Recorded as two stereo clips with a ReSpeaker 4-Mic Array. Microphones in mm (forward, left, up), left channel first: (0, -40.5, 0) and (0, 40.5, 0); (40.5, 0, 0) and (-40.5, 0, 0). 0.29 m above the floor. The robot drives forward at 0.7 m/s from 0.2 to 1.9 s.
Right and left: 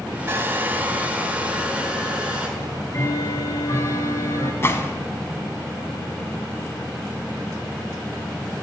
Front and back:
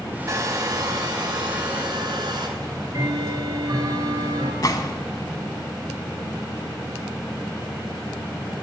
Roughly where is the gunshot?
Ahead right.